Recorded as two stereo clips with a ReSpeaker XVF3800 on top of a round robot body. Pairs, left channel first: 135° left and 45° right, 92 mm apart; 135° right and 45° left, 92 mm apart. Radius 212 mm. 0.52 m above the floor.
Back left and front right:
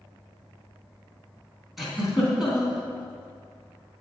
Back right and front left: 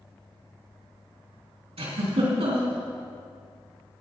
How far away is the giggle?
About 3.5 m.